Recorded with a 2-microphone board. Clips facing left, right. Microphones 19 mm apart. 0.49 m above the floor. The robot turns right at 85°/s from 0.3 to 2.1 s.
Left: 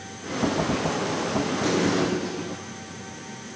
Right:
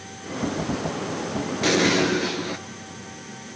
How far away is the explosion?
About 3.5 m.